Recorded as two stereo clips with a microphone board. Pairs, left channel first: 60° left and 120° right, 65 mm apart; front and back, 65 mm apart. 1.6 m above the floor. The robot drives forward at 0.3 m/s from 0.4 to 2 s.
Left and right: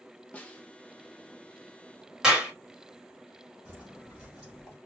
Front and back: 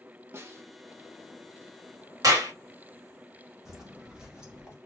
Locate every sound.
0.3 s a snare drum: 130° left, 0.7 m; by 0.6 s 135° left, 0.7 m
2.2 s a clap: 165° left, 1.6 m
3.6 s footsteps: 105° right, 1.7 m; by 4.8 s 165° right, 1.6 m